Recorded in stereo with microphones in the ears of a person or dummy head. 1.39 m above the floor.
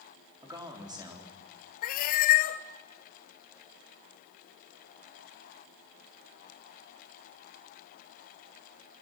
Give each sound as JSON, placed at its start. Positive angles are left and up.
{"t": 0.4, "sound": "a man speaking", "side_deg": -15, "distance_m": 4.0}
{"t": 1.8, "sound": "a cat meowing", "side_deg": 50, "distance_m": 1.2}